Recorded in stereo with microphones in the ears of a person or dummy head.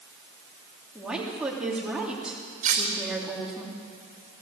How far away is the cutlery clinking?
About 3 m.